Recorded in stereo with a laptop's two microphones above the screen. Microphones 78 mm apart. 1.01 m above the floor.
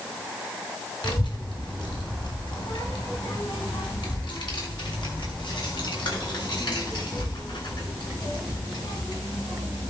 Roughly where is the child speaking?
Left.